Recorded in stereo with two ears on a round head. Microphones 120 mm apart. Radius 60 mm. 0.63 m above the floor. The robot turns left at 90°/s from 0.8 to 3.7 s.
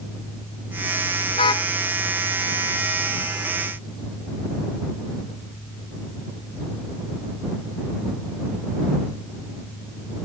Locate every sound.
1.3 s a car horn: 45° left; by 1.7 s 15° left